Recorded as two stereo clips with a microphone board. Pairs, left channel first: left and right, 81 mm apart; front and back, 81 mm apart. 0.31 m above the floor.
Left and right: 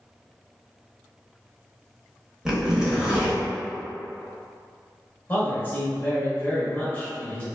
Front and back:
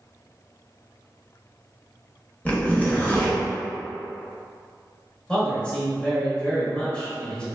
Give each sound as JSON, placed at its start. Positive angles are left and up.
{"t": 2.5, "sound": "a zipper", "azimuth_deg": -25, "distance_m": 0.9}
{"t": 5.3, "sound": "a man speaking", "azimuth_deg": 65, "distance_m": 1.0}